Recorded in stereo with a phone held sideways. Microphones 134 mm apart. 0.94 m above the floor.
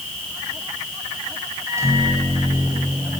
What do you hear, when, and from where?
1.7 s a microwave: 20° right (ahead or behind), 5 m